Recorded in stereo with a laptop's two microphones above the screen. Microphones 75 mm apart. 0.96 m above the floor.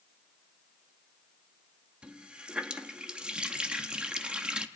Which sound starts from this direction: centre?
A running tap, at 2.0 s.